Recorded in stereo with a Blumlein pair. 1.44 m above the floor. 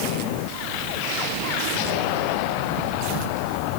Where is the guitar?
No guitar in this recording.